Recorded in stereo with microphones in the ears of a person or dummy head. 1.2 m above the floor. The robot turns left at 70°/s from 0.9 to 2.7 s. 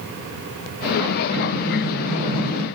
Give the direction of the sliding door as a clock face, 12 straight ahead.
11 o'clock.